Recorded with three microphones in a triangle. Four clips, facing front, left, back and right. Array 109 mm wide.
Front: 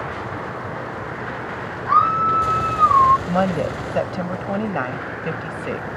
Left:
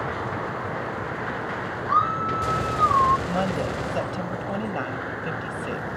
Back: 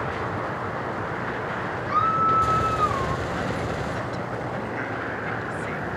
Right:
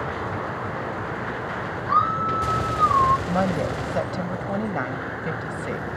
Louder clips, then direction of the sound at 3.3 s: Right 2 dB, front 7 dB; 10° right.